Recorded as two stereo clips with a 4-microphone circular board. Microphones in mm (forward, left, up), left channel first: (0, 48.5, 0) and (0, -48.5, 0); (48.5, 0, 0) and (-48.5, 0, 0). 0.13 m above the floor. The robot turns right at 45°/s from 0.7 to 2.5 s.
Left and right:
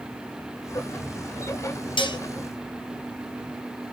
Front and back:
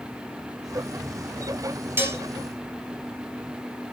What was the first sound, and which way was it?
Dishes clattering, 115° left.